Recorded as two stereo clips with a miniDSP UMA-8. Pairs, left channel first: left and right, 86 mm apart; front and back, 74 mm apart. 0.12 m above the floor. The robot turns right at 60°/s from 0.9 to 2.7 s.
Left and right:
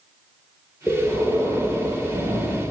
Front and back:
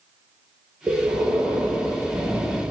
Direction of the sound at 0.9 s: 160° left.